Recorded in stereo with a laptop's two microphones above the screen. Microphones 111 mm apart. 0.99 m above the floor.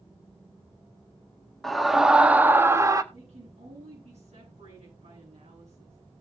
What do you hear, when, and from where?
1.6 s a scream: centre (ahead or behind), 1.4 m; by 3.0 s 35° right (ahead or behind), 1.2 m
3.1 s a woman speaking: 80° right, 10 m